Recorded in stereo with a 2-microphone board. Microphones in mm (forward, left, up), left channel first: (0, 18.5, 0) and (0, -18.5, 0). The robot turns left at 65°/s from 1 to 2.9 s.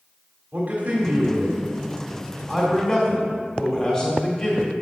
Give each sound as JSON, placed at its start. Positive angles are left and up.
{"t": 0.5, "sound": "a man speaking", "azimuth_deg": -80, "distance_m": 1.6}